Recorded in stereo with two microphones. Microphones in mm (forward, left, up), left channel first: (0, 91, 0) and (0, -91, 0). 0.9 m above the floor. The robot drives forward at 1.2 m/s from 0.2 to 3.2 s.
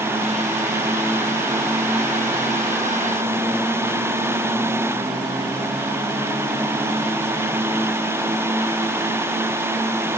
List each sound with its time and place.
Only background noise.